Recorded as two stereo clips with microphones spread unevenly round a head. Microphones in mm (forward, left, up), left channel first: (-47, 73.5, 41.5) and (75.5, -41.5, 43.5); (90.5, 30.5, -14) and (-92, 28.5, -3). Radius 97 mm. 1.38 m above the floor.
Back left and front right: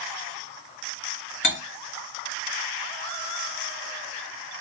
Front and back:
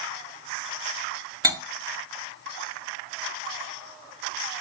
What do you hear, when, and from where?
1.4 s cutlery clinking: 115° left, 2.5 m